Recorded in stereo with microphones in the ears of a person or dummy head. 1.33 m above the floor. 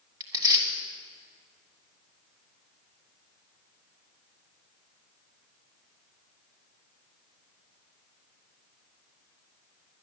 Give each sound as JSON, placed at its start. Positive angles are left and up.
{"t": 0.2, "sound": "tearing paper", "side_deg": -25, "distance_m": 1.5}